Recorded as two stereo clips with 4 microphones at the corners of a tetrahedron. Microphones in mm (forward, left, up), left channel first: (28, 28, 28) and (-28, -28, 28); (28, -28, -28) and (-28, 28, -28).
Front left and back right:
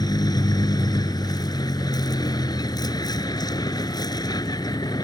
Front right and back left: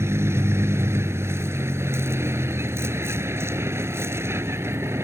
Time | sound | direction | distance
0.0 | a vehicle | 75° left | ?